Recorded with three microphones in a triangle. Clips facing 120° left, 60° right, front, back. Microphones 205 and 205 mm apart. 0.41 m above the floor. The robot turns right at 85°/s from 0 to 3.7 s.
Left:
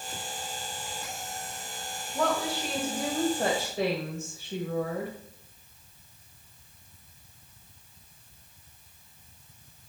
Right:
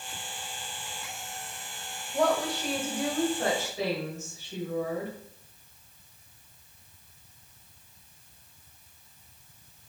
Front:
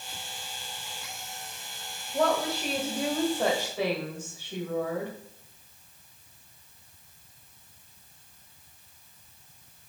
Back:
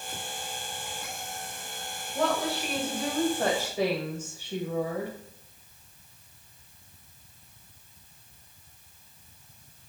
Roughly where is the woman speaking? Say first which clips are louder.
Right 2 dB, front 2 dB; ahead right.